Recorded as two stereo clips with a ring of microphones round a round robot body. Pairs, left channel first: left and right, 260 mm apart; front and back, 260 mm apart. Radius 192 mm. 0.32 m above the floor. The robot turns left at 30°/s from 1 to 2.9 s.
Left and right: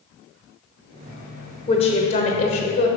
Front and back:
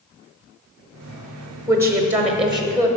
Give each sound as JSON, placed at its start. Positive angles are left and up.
{"t": 1.7, "sound": "a woman speaking", "azimuth_deg": 120, "distance_m": 0.9}